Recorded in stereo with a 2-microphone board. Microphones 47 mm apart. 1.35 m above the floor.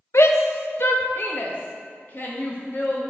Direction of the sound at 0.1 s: 70° left (ahead or behind).